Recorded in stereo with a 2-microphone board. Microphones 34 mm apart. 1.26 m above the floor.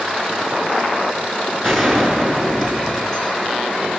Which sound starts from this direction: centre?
A gunshot, at 1.6 s.